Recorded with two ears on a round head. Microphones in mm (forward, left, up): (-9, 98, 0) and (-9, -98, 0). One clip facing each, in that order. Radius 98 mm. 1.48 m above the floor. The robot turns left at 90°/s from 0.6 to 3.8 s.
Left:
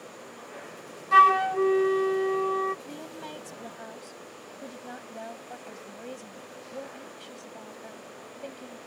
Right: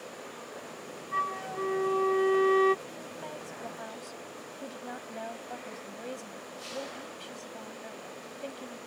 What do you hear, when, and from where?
1.1 s a flute: 100° left; by 2.8 s 50° right
2.9 s a woman speaking: 85° left; by 8.8 s straight ahead